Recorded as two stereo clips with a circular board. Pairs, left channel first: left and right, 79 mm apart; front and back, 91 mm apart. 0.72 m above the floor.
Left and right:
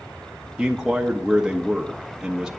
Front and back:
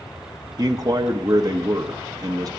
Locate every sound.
0.6 s a man speaking: 170° right, 0.7 m